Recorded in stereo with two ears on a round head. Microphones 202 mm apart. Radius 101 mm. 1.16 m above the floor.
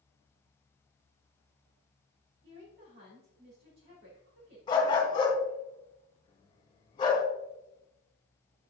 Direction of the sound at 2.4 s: 50° right (ahead or behind).